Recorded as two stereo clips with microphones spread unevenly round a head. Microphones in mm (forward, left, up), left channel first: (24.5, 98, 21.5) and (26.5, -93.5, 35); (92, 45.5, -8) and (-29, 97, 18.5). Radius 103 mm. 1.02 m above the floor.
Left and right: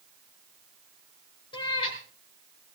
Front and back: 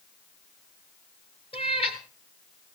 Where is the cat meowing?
25° left, 3 m.